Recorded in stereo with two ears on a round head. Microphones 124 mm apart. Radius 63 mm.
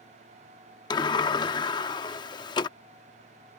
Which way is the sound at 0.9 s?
30° left (ahead or behind).